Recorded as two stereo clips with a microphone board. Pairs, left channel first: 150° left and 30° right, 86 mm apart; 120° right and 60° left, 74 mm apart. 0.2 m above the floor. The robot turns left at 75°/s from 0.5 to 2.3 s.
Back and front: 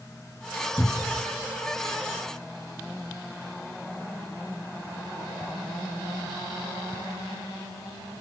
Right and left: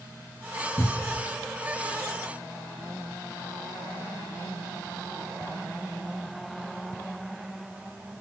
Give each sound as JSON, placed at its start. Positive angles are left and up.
{"t": 0.8, "sound": "a cupboard door", "azimuth_deg": -150, "distance_m": 1.4}